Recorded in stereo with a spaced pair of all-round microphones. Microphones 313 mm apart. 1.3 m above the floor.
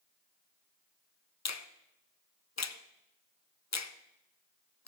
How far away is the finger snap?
About 0.5 m.